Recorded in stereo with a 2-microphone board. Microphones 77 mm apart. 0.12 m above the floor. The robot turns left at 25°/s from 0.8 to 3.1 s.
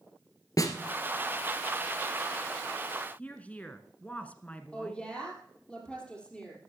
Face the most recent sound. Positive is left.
turn(degrees=10)  # may be behind; listen again after turning